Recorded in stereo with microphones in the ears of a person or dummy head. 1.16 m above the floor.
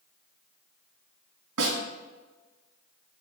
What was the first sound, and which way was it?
A snare drum, 75° right (ahead or behind).